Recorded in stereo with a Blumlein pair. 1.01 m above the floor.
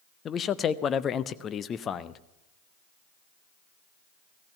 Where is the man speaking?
25° left, 0.7 m.